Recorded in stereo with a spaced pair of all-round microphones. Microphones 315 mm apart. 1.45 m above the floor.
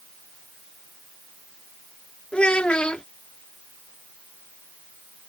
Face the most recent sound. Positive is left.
turn(degrees=5)  # may be behind; listen again after turning